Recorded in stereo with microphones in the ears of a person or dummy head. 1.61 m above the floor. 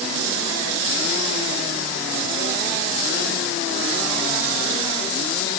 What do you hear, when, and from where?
Only background noise.